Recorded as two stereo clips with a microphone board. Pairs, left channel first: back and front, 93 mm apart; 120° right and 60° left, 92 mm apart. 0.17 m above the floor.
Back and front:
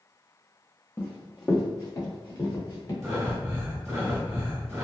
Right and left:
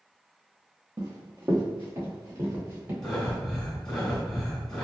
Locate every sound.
1.0 s running footsteps: 105° left, 0.9 m; by 2.9 s 130° left, 2 m
3.0 s breathing: 40° right, 1.1 m